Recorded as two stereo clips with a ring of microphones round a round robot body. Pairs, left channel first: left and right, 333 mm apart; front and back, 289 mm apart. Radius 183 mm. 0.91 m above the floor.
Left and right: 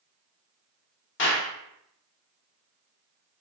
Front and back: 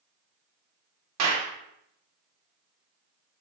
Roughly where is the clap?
Behind left.